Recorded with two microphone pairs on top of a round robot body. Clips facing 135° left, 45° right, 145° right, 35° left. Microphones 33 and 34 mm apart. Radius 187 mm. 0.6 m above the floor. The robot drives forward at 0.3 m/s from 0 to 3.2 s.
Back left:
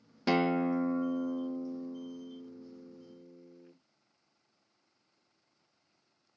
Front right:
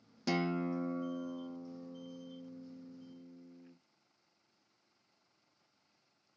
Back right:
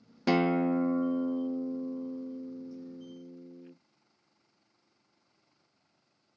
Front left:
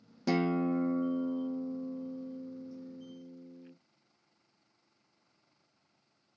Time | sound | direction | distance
0.3 | a guitar | straight behind | 0.5 m